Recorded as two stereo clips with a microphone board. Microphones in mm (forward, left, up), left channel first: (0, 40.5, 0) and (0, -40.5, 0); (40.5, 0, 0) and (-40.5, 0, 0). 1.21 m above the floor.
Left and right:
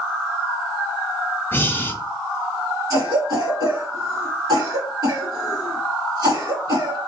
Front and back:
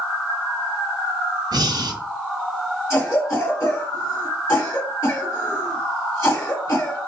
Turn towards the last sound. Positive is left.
turn(degrees=-60)